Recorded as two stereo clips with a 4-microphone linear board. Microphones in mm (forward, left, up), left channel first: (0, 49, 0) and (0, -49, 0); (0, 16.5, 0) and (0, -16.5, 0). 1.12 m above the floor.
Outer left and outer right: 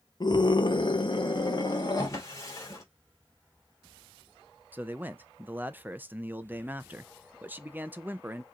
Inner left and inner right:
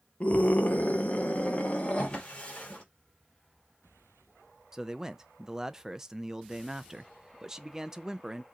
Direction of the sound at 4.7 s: 20° right (ahead or behind).